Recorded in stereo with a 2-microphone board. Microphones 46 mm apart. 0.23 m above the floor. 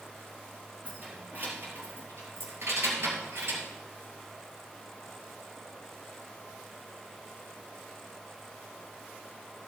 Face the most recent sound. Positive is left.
turn(degrees=-60)  # may be behind; listen again after turning